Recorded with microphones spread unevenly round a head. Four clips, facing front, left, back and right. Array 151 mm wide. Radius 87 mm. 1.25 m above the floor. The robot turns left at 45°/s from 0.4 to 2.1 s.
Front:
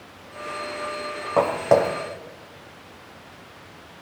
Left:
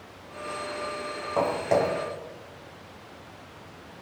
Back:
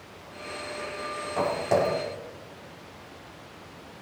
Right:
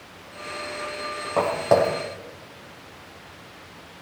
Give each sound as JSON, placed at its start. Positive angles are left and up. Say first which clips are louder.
{"t": 1.4, "sound": "footsteps", "louder": "right 4 dB, front 6 dB", "azimuth_deg": -15, "distance_m": 3.0}